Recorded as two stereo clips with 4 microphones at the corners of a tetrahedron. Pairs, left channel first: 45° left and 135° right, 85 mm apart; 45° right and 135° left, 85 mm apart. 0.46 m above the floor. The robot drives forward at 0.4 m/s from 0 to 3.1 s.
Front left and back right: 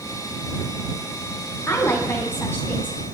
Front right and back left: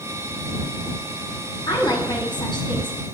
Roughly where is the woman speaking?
Ahead.